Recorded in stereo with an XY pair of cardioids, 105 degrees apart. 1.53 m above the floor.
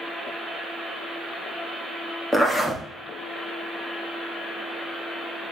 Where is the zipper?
10° left, 0.9 m.